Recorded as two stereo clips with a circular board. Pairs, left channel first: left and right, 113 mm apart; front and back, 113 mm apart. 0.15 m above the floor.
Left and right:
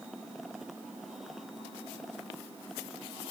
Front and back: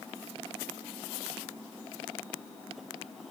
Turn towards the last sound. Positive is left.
No sound to turn to.